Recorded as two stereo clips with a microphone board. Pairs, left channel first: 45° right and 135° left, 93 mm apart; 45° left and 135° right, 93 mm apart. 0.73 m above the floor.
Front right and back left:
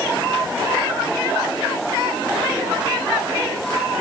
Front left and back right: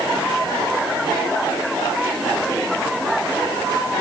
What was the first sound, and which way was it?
Only background noise.